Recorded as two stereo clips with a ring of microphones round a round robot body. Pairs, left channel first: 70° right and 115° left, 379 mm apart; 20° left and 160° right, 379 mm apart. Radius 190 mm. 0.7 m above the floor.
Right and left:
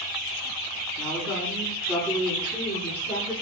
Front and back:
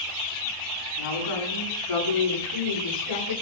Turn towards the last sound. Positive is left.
turn(degrees=5)